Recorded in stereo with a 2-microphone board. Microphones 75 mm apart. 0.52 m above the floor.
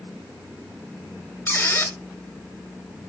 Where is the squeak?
30° left (ahead or behind), 1.3 m.